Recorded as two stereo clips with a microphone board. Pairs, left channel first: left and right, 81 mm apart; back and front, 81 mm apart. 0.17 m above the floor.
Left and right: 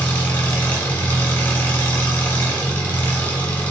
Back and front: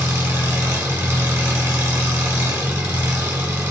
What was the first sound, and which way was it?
An engine running, 35° left.